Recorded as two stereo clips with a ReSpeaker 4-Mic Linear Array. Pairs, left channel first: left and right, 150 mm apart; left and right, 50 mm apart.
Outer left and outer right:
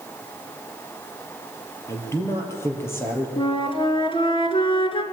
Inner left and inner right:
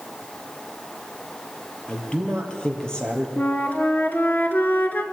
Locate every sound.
1.9 s a man speaking: 20° left (ahead or behind), 3 m; by 3.3 s 15° left (ahead or behind), 4 m
3.4 s a flute: 35° left (ahead or behind), 1.5 m